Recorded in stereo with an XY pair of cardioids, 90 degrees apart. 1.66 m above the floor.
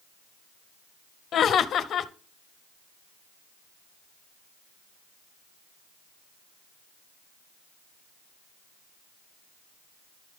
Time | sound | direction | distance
1.3 | laughter | 70° left | 0.6 m